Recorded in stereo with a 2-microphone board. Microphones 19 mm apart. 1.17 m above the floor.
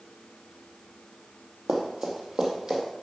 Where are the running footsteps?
50° right (ahead or behind), 2 m; by 2.8 s 30° right (ahead or behind), 2.5 m.